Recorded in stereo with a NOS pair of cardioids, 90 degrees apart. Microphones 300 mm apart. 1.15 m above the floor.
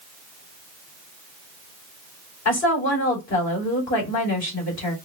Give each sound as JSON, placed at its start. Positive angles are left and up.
{"t": 2.5, "sound": "a woman speaking", "azimuth_deg": 60, "distance_m": 3.0}